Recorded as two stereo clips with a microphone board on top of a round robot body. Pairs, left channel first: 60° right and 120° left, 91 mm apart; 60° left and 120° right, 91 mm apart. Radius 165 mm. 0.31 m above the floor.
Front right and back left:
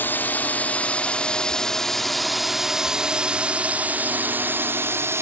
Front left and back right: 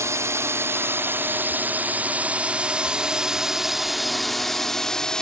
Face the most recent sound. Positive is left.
turn(degrees=135)